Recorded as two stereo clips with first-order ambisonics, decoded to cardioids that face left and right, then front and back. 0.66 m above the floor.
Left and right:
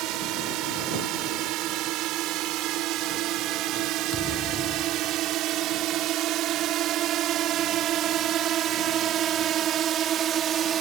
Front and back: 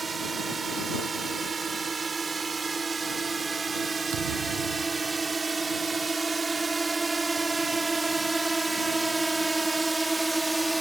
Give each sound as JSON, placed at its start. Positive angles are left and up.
{"t": 0.0, "sound": "a drone", "azimuth_deg": -110}
{"t": 4.1, "sound": "a thud", "azimuth_deg": 155}